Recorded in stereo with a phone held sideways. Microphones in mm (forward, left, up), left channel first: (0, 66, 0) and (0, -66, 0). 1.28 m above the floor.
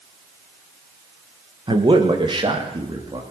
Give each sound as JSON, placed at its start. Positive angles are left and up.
{"t": 1.7, "sound": "a man speaking", "side_deg": -35, "distance_m": 1.5}